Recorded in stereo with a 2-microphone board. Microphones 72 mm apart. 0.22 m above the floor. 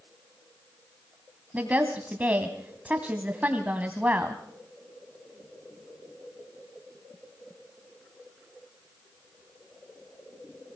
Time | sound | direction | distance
1.5 | a woman speaking | 20° right (ahead or behind) | 1.4 m